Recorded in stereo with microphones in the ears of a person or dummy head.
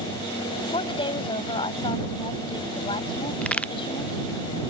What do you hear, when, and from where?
0.6 s a woman speaking: 30° left (ahead or behind)
3.4 s a crack: 10° left (ahead or behind)